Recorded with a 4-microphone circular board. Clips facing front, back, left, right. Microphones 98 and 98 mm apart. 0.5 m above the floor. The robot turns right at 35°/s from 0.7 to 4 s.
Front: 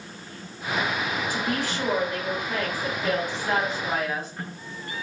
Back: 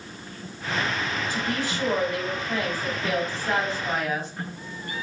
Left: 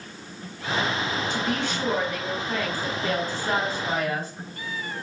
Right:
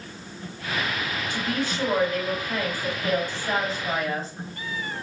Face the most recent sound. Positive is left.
turn(degrees=80)